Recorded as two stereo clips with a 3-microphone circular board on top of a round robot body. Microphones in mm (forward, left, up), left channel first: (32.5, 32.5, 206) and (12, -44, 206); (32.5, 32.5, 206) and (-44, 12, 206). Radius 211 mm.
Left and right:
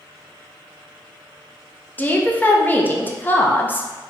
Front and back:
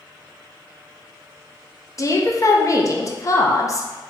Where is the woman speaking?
20° left, 1.0 m.